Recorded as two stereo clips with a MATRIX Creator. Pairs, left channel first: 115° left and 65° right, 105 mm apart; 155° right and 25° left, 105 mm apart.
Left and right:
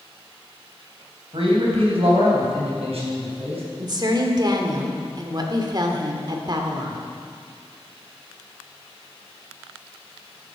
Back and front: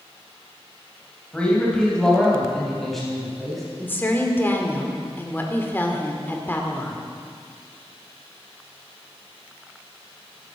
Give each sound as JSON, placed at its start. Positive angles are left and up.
{"t": 1.3, "sound": "a man speaking", "azimuth_deg": -80, "distance_m": 3.5}
{"t": 3.8, "sound": "a woman speaking", "azimuth_deg": -95, "distance_m": 1.6}